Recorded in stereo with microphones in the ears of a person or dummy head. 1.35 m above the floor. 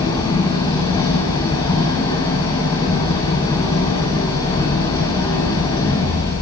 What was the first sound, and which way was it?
An engine running, 20° left (ahead or behind).